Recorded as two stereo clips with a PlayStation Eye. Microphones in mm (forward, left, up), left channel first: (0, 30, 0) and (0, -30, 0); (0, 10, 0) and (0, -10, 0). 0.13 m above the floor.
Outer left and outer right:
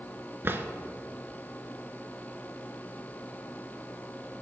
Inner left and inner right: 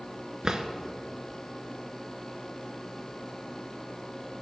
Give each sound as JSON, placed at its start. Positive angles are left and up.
{"t": 0.4, "sound": "a drawer", "side_deg": -40, "distance_m": 0.6}